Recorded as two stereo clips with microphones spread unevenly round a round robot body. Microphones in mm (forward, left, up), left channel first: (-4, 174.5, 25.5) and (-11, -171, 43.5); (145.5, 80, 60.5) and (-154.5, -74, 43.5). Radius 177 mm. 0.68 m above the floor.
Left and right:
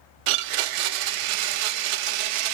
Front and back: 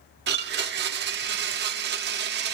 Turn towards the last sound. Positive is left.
turn(degrees=-90)